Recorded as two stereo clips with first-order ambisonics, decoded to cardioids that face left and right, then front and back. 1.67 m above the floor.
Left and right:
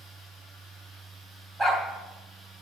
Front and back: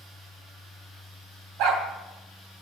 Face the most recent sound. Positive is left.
turn(degrees=-165)